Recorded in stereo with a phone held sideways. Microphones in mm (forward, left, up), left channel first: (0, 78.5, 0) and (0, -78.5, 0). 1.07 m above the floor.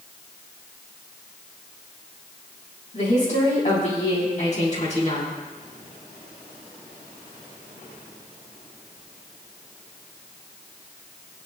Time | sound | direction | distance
2.9 | a woman speaking | 50° left (ahead or behind) | 6 m